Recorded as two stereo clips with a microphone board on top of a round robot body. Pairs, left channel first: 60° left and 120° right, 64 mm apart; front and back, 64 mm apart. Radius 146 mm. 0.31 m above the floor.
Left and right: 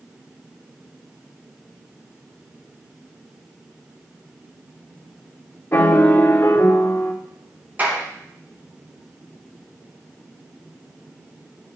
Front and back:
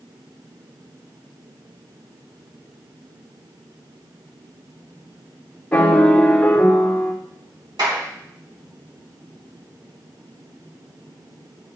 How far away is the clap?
About 3.5 m.